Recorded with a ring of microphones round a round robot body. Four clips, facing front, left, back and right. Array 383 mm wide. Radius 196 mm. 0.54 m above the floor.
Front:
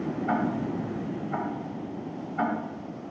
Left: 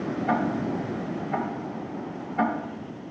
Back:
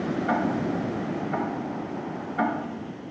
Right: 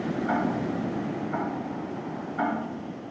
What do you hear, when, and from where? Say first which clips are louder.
0.3 s ticking: left 2 dB, back 1 dB; 130° left, 2.5 m